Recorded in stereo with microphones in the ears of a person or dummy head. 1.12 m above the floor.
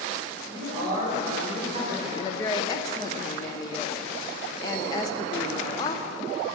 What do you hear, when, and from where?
0.5 s a man speaking: 25° right (ahead or behind), 4.5 m; by 2.1 s 35° right (ahead or behind), 4.5 m
2.2 s a woman speaking: 20° left (ahead or behind), 0.6 m